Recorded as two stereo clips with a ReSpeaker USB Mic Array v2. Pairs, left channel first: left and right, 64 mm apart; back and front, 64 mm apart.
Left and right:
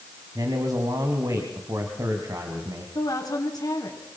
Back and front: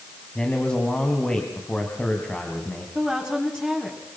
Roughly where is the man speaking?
Right.